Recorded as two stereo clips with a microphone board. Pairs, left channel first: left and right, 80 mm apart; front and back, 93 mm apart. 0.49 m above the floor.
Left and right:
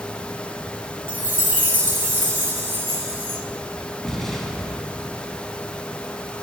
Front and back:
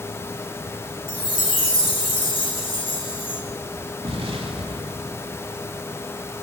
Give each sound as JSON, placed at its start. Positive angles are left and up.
{"t": 1.1, "sound": "a chime", "azimuth_deg": -25, "distance_m": 2.0}
{"t": 4.0, "sound": "an explosion", "azimuth_deg": 175, "distance_m": 1.9}